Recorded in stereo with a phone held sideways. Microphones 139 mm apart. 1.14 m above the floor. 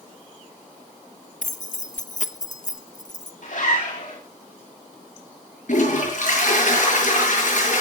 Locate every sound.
1.4 s keys jangling: 60° left (ahead or behind), 0.9 m
3.4 s a zipper: 65° left (ahead or behind), 10 m
5.7 s a toilet flushing: 65° left (ahead or behind), 7 m